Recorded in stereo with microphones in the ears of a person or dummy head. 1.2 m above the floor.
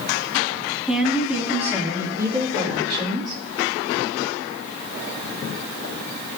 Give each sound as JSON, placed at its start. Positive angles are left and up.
{"t": 0.9, "sound": "a woman speaking", "side_deg": 0, "distance_m": 2.5}